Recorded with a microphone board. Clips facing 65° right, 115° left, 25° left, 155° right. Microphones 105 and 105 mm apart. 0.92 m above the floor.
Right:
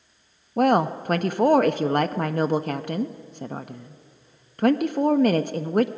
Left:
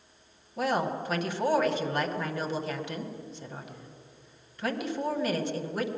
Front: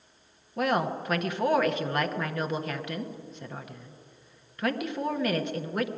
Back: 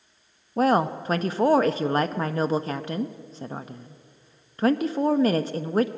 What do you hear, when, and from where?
0.6 s a woman speaking: 100° right, 0.6 m